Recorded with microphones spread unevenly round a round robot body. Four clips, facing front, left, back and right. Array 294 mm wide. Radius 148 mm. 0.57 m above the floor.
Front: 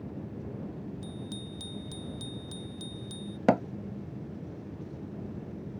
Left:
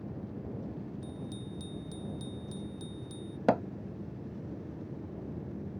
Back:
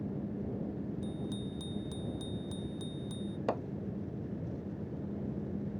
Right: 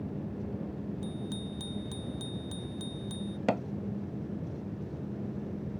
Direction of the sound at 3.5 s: 5° left.